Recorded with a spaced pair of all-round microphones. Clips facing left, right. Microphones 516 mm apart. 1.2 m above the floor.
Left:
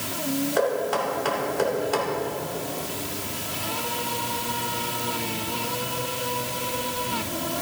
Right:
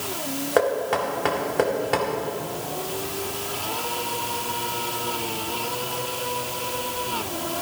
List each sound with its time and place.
0.6 s knocking: 75° right (ahead or behind), 2 m